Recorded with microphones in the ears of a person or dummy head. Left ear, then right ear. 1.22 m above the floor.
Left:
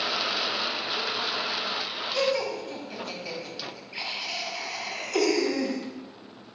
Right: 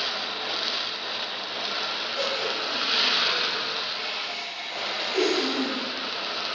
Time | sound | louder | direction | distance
2.1 | laughter | left 3 dB | 40° left (ahead or behind) | 2.5 m